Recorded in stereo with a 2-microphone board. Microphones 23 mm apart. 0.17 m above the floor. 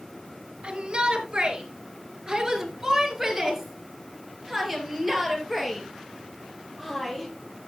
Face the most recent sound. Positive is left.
turn(degrees=5)  # may be behind; listen again after turning